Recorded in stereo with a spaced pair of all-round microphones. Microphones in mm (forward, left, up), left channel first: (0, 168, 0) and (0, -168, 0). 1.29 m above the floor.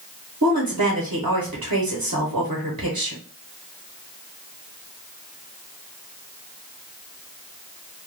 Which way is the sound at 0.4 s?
55° right (ahead or behind).